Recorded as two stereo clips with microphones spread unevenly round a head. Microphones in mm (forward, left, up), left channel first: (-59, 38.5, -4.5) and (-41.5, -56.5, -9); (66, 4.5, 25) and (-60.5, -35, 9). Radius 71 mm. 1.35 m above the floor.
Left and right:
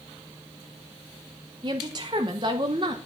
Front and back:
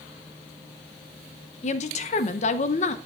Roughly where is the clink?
I don't hear a clink.